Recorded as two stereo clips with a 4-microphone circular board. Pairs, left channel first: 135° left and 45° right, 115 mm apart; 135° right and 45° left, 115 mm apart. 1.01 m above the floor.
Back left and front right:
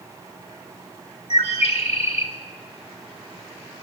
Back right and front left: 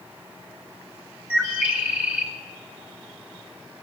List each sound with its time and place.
1.3 s a bird: 120° left, 1.8 m